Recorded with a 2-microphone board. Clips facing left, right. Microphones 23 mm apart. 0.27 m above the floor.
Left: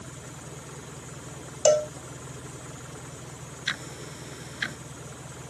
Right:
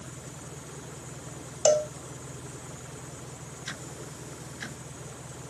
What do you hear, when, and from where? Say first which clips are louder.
0.0 s an engine running: left 1 dB; 15° left (ahead or behind)
1.6 s a cowbell: left 2 dB; 20° left (ahead or behind)
3.7 s ticking: left 8 dB; 60° left (ahead or behind)